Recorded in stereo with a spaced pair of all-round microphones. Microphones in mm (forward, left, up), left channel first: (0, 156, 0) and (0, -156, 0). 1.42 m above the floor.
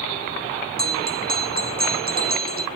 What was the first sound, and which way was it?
A bell, 30° right (ahead or behind).